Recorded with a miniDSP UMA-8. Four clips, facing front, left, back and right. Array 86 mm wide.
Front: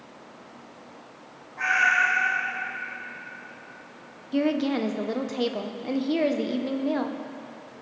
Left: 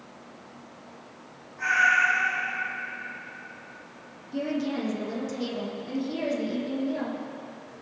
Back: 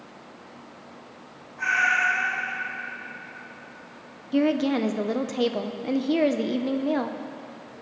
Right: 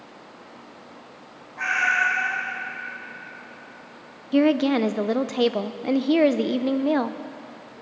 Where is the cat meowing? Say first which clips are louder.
Even, front 1 dB; 55° right, 3 m.